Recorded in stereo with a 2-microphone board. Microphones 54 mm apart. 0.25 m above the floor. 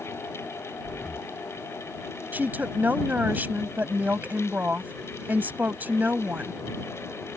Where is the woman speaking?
35° right (ahead or behind).